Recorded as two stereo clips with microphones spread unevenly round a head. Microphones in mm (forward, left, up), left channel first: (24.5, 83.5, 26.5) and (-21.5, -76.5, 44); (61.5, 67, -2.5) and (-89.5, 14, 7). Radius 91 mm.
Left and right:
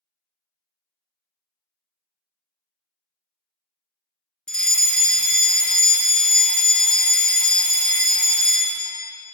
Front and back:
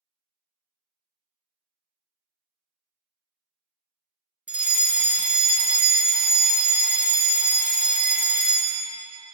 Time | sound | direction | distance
4.5 | a fire alarm | 130° left | 1.2 m